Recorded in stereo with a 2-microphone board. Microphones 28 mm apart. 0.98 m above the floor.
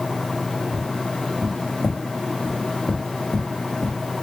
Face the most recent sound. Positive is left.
turn(degrees=25)  # may be behind; listen again after turning